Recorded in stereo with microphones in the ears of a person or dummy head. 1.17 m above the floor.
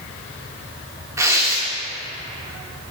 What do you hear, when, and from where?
1.2 s tearing paper: 20° right (ahead or behind), 0.9 m